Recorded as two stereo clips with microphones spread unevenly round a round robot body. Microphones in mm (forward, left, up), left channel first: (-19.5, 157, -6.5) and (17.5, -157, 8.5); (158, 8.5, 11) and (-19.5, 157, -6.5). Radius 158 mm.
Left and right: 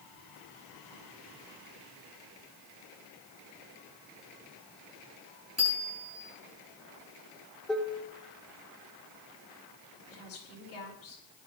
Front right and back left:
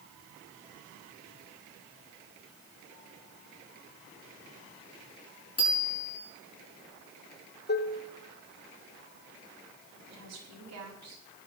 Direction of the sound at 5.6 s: 30° left.